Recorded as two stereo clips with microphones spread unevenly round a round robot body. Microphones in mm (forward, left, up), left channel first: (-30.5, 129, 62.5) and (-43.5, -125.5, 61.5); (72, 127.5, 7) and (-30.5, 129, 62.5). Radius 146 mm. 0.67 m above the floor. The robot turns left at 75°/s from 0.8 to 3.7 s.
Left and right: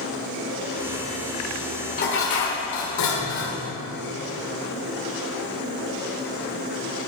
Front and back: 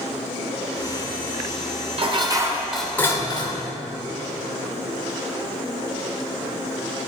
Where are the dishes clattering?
140° left, 1.7 m; by 3.6 s 15° left, 1.7 m.